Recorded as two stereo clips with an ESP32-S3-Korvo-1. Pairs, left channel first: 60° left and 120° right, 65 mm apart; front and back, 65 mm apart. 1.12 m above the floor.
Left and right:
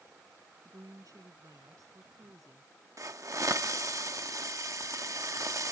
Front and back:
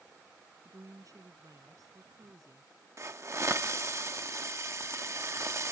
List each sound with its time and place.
0.7 s a woman speaking: 150° right
3.0 s a hiss: 145° right